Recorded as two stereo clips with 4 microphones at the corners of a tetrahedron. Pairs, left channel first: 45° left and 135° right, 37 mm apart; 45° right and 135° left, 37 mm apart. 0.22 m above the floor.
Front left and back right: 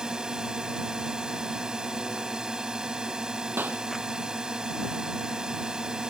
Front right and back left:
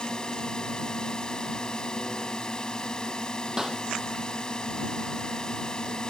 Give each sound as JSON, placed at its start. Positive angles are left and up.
{"t": 0.0, "sound": "a drone", "azimuth_deg": -85}
{"t": 3.6, "sound": "a clap", "azimuth_deg": -150}